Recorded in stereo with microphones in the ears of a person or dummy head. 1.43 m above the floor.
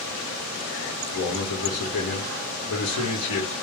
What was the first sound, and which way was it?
A man speaking, 65° left (ahead or behind).